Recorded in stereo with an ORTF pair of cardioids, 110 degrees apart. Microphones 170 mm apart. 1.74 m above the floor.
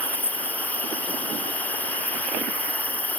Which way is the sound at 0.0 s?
10° left.